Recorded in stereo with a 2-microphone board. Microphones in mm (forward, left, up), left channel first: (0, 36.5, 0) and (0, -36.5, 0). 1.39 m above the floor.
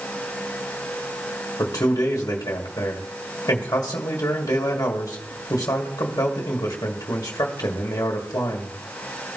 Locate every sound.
1.6 s a man speaking: 55° left (ahead or behind), 1.8 m